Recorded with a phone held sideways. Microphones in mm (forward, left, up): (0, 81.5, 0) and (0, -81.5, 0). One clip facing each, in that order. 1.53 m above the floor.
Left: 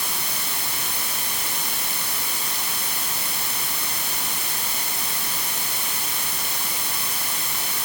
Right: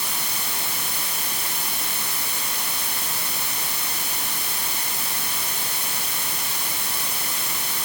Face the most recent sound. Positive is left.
No sound to turn to.